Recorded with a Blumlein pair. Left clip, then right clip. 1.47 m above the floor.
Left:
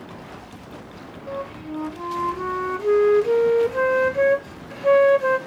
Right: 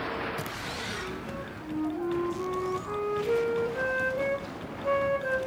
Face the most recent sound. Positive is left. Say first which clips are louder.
# left 6 dB
turn(degrees=55)